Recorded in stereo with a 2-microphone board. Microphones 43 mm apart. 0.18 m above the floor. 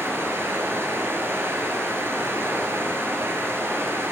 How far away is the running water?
About 1.2 m.